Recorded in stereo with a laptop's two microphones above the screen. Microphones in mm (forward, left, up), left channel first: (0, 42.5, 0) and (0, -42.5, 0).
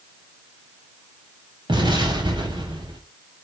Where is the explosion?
65° right (ahead or behind), 6 m.